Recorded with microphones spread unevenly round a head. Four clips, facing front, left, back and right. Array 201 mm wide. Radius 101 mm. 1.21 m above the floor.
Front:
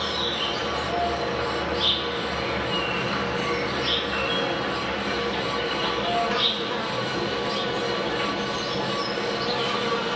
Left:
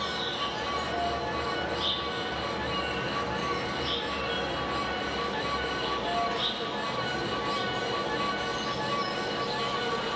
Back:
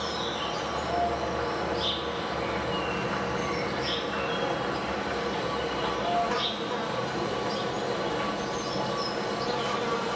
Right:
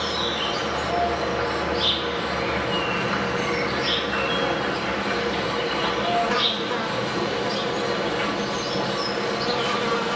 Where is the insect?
80° right, 1.7 m.